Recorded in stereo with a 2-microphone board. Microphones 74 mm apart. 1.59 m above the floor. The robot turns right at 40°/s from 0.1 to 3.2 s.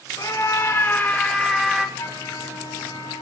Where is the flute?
55° left, 5 m; by 3.2 s 105° left, 5 m.